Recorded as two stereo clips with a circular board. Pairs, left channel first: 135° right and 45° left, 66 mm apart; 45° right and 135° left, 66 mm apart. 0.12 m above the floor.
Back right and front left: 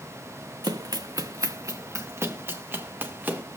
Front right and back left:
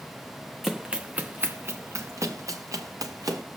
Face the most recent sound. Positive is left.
turn(degrees=110)